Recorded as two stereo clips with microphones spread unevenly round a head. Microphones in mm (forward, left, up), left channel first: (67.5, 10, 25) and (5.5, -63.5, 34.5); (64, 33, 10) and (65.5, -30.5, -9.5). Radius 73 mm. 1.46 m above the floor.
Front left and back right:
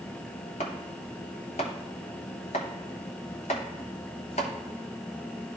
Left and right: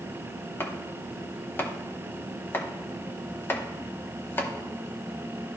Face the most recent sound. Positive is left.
turn(degrees=80)